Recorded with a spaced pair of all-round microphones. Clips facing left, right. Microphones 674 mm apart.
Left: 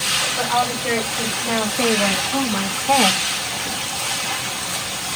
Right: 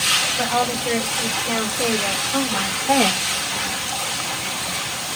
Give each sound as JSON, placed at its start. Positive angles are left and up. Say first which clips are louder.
{"t": 0.4, "sound": "a woman speaking", "louder": "right 1 dB", "side_deg": 85, "distance_m": 4.0}